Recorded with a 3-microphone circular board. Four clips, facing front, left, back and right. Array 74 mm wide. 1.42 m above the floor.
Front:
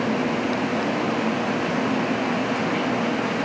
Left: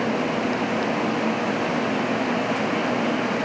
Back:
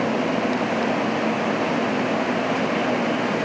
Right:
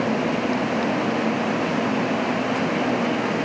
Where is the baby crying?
I don't hear a baby crying.